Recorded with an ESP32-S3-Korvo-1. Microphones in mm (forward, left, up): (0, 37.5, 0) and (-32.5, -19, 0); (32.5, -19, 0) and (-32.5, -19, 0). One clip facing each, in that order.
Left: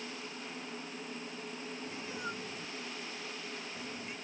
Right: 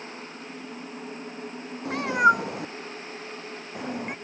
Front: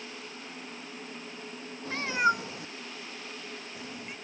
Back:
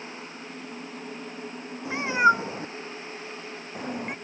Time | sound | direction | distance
1.9 | a cat meowing | 110° right | ?